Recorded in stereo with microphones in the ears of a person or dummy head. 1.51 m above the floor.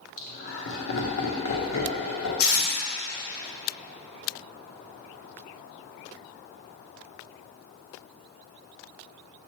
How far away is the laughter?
About 0.8 m.